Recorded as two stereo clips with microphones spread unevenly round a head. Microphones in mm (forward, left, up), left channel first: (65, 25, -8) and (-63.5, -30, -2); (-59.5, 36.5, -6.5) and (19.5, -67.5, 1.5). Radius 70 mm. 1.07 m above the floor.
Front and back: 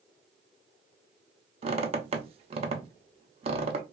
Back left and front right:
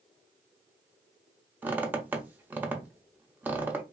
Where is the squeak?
125° right, 0.6 m.